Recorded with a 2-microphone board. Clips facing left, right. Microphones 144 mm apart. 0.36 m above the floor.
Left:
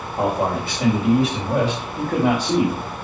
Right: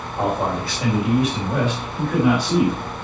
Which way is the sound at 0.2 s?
20° left (ahead or behind).